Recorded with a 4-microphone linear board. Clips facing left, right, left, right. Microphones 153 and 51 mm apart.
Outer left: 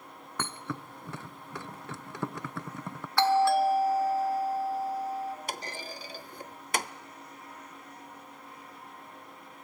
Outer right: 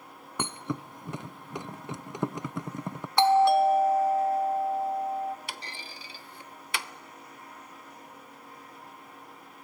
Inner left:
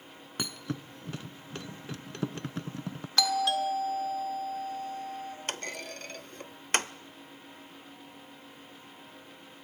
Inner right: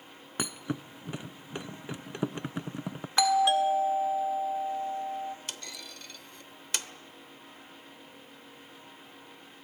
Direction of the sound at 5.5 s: 45° left (ahead or behind).